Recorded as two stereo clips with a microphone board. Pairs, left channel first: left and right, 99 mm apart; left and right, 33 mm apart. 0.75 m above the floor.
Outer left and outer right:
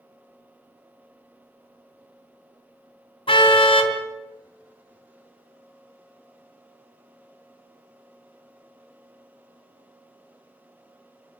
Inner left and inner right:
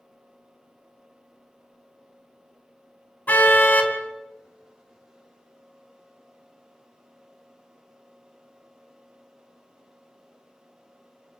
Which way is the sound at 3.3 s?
55° left (ahead or behind).